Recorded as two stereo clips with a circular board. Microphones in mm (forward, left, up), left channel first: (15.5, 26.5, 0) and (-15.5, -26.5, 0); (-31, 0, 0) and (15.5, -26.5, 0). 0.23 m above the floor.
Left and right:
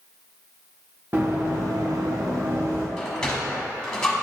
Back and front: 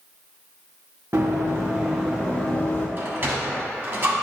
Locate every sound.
1.1 s running footsteps: 70° right, 1.6 m; by 2.9 s 155° right, 1.7 m
3.0 s a sliding door: 15° right, 1.3 m